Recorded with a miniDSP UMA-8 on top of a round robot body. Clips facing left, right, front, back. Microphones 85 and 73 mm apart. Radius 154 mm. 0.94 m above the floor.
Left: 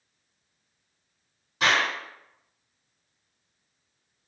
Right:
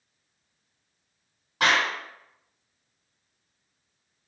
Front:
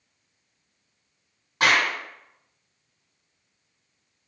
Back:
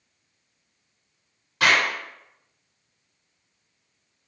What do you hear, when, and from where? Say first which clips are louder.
1.6 s a clap: right 1 dB, even; 55° right, 1.9 m